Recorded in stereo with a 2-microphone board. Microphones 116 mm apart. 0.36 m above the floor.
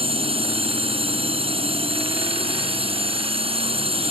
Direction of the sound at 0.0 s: 55° right (ahead or behind).